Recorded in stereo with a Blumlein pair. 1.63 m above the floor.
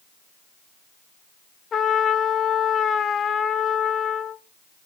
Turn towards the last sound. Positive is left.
turn(degrees=20)